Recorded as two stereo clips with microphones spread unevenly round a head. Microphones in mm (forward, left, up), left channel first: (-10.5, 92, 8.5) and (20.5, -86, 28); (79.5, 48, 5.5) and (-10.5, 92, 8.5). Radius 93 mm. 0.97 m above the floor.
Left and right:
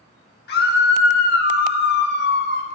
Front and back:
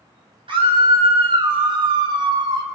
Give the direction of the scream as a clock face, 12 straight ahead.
8 o'clock.